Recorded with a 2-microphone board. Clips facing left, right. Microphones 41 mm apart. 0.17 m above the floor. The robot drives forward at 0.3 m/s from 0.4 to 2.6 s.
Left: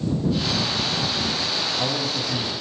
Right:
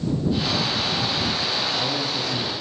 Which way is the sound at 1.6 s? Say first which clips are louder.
Even; 15° left (ahead or behind).